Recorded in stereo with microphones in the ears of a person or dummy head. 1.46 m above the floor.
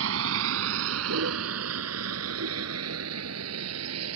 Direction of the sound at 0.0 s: 80° right.